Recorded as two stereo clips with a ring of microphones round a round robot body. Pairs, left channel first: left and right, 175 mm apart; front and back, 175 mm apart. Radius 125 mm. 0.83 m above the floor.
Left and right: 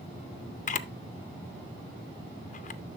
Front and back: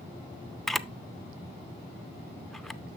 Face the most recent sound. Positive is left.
turn(degrees=90)